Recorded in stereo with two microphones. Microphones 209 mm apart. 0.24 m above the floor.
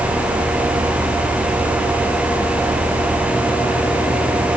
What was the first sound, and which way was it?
Only background noise.